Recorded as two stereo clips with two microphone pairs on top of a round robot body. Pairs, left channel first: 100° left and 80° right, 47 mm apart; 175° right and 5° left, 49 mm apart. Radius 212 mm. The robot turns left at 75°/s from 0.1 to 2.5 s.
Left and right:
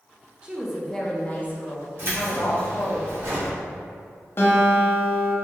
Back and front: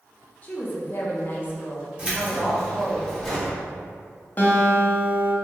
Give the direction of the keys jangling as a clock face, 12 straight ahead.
2 o'clock.